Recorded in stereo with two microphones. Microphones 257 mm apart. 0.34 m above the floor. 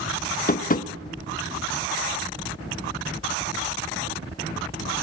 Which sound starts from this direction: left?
Tapping, at 0.5 s.